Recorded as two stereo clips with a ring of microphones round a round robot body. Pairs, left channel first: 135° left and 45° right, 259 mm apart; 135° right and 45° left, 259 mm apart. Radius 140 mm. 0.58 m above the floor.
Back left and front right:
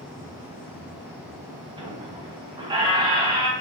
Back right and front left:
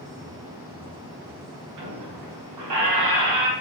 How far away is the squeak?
About 1.5 m.